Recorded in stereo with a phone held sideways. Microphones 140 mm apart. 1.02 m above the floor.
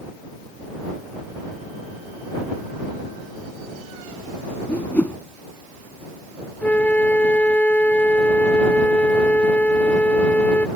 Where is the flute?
10° left (ahead or behind).